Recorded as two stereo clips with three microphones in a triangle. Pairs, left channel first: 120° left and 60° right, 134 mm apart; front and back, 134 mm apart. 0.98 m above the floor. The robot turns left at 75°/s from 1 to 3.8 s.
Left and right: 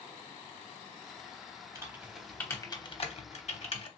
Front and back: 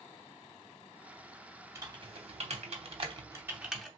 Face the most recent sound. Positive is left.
turn(degrees=85)